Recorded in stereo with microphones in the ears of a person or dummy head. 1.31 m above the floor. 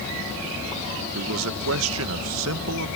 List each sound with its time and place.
1.1 s a man speaking: 70° right (ahead or behind)